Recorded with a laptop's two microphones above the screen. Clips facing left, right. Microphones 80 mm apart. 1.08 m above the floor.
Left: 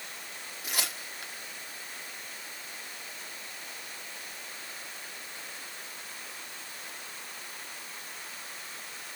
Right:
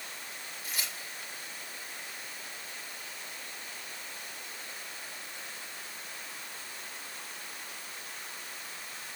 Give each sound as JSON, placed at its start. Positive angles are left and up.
{"t": 0.6, "sound": "tearing paper", "side_deg": 75, "distance_m": 1.3}